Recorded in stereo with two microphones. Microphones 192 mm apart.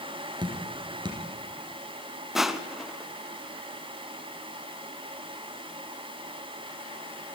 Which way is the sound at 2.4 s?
Centre (ahead or behind).